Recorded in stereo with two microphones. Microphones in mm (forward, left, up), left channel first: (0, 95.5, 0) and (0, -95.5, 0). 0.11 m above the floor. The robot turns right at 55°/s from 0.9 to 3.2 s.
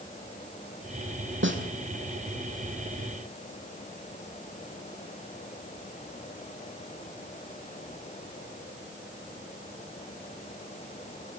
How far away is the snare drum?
About 2.5 m.